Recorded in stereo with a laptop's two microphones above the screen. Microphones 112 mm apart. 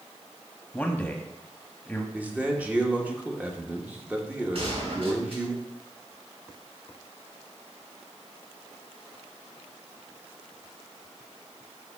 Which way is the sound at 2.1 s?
15° right (ahead or behind).